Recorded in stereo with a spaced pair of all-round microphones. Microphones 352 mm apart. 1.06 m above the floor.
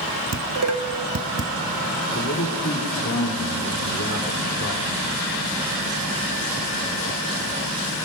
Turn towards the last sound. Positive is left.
turn(degrees=45)  # may be behind; listen again after turning